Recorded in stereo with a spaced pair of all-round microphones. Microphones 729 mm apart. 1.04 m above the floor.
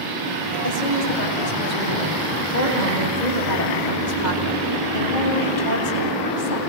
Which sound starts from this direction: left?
A woman speaking, at 0.6 s.